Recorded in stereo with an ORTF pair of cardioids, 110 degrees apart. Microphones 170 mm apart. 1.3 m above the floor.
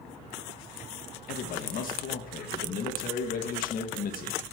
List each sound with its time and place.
1.3 s a man speaking: 60° left, 1.8 m